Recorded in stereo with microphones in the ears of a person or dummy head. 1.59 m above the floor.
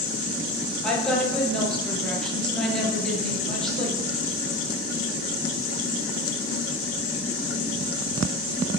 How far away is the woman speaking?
About 0.8 m.